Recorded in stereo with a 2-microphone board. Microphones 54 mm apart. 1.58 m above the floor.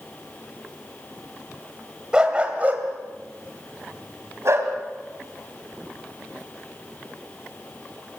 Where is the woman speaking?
No woman speaking in this recording.